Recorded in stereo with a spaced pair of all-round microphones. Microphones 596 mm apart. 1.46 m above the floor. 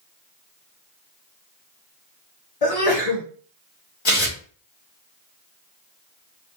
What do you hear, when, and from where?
2.6 s a sneeze: 75° left (ahead or behind), 1.2 m
4.0 s tearing paper: 45° left (ahead or behind), 1.1 m